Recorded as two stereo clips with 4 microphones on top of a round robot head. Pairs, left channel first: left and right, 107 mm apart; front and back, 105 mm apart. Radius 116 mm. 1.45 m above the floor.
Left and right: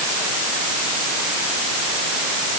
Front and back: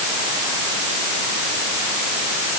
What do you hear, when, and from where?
Only background noise.